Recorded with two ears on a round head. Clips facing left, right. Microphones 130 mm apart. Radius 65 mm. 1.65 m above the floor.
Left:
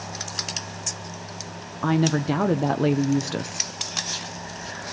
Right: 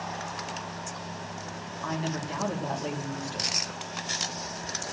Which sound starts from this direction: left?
A woman speaking, at 1.8 s.